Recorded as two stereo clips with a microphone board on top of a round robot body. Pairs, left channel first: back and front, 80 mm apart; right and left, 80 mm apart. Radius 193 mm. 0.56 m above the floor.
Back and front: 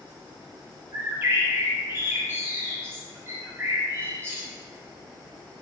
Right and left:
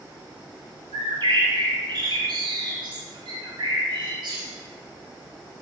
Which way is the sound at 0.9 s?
65° left.